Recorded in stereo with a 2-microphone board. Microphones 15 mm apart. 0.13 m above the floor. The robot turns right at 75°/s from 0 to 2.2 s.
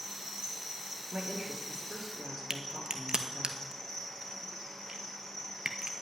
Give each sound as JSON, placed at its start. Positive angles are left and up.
{"t": 0.0, "sound": "an insect", "azimuth_deg": -110, "distance_m": 4.5}
{"t": 1.1, "sound": "a woman speaking", "azimuth_deg": -145, "distance_m": 2.5}
{"t": 2.5, "sound": "a crack", "side_deg": -65, "distance_m": 0.8}